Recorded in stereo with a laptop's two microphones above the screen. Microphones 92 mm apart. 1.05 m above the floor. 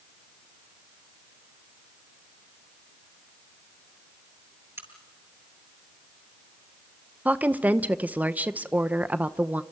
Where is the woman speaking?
20° right (ahead or behind), 0.7 m.